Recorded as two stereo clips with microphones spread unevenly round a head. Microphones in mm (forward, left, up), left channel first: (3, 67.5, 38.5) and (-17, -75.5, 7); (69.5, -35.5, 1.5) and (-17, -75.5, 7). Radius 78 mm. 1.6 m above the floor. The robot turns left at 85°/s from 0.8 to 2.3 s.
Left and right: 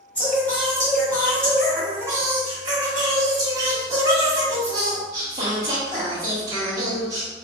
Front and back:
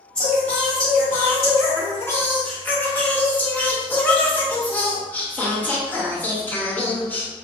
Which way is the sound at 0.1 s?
95° left.